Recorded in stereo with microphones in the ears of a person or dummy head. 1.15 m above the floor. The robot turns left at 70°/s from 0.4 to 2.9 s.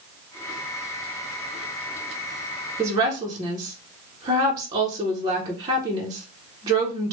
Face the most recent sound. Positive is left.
turn(degrees=-15)  # may be behind; listen again after turning